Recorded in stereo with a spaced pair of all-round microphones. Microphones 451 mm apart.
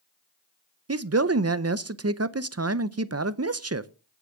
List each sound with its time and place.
0.9 s a man speaking: 35° right (ahead or behind), 0.6 m